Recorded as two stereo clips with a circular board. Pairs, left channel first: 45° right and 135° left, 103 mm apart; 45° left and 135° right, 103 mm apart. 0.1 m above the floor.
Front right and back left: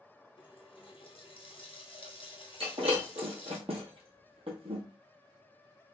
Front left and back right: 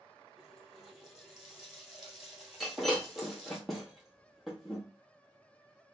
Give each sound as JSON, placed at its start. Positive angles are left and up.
{"t": 0.4, "sound": "a running tap", "azimuth_deg": -55, "distance_m": 1.4}
{"t": 2.6, "sound": "breaking glass", "azimuth_deg": 135, "distance_m": 1.6}